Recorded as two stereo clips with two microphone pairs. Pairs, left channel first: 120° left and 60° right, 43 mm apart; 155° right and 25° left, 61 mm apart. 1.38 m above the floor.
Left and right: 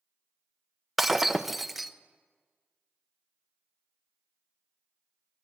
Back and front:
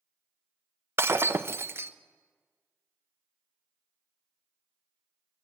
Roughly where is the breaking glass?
Ahead left.